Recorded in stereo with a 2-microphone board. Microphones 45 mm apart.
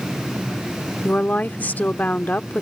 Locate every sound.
1.0 s a woman speaking: 40° left (ahead or behind)